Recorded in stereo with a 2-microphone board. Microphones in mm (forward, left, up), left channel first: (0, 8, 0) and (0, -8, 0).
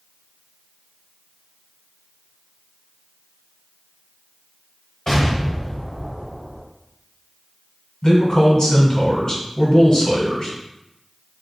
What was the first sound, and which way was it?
An explosion, 25° left (ahead or behind).